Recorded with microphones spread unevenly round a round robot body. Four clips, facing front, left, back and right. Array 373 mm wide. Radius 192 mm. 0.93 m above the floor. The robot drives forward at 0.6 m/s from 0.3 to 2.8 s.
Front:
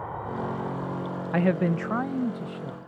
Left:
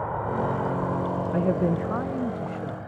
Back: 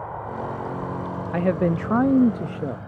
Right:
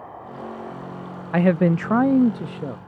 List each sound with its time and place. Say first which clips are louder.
0.0 s an insect: left 9 dB, back 2 dB; 95° left; by 2.9 s 155° left
1.3 s a man speaking: right 7 dB, back 2 dB; 65° right; by 2.8 s 150° right